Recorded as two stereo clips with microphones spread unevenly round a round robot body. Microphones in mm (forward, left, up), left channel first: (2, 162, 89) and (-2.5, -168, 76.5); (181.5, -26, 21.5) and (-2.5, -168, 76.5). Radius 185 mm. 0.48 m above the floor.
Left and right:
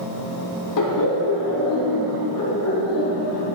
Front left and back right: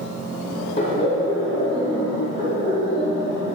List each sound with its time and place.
0.8 s laughter: 85° left, 1.7 m; by 3.5 s 135° left, 4 m